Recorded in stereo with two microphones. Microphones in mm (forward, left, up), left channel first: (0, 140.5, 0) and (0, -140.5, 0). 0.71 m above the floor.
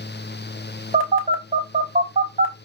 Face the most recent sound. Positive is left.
turn(degrees=-25)  # may be behind; listen again after turning